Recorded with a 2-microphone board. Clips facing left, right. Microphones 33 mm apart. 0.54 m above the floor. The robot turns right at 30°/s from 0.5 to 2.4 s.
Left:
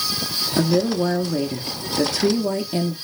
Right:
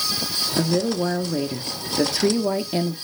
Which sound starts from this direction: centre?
A woman speaking, at 0.6 s.